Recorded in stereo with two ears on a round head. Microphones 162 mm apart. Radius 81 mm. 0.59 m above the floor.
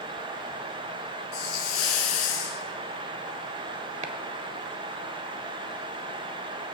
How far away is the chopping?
About 1.3 m.